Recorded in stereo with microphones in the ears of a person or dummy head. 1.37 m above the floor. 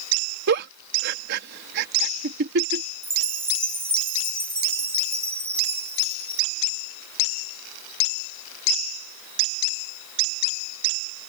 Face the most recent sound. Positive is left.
turn(degrees=-15)  # may be behind; listen again after turning